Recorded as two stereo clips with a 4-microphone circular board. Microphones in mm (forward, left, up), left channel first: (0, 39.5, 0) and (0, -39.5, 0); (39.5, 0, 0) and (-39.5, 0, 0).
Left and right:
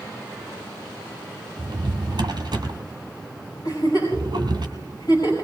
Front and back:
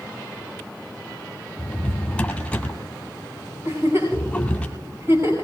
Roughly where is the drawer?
Right.